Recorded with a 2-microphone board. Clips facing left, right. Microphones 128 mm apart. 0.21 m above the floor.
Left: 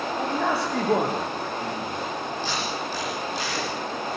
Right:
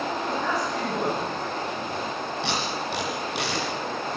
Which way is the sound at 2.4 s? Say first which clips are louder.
Even; 80° right.